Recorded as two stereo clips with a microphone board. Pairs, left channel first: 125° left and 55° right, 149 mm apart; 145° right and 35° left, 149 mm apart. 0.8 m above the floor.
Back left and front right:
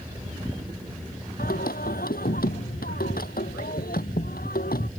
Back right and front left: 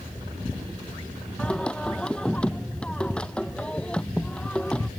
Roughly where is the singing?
Behind left.